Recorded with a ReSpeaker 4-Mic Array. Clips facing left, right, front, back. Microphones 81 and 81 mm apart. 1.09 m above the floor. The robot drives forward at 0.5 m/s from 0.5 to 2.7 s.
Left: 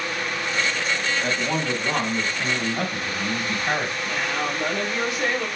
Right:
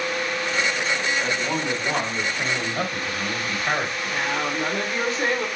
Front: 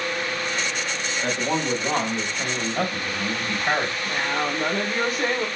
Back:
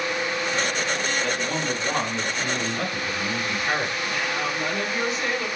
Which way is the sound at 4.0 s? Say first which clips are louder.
Right 1 dB, front 2 dB; 40° right.